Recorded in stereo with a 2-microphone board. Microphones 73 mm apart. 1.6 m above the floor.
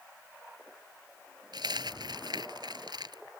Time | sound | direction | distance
1.5 | a dropped coin | 70° right (ahead or behind) | ?